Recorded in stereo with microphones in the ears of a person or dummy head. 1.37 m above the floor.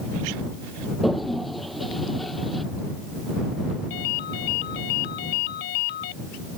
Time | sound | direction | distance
1.0 | a toilet flushing | centre (ahead or behind) | ?
3.9 | a ringtone | 60° left (ahead or behind) | ?